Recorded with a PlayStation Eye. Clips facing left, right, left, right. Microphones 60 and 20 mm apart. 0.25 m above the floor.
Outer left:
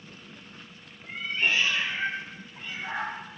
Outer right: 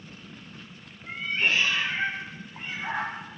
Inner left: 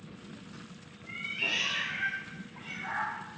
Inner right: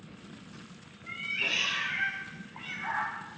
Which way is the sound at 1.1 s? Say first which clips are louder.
Outer right 1 dB, inner right 1 dB; 60° right (ahead or behind).